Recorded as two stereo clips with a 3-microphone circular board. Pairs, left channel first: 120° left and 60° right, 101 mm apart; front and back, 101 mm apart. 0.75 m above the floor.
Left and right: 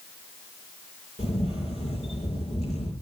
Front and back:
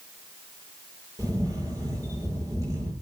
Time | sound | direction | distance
1.2 | a camera shutter | 120° left | 8.5 m